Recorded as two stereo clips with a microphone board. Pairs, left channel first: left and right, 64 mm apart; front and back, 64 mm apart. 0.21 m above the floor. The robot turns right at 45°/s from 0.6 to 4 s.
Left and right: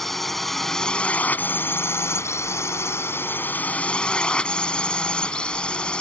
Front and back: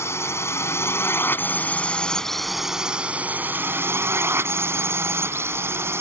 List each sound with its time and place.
0.0 s a drone: 5° left; by 6.0 s 160° left